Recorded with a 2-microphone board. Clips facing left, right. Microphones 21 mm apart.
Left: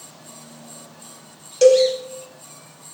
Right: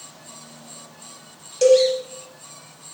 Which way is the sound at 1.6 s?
15° left (ahead or behind).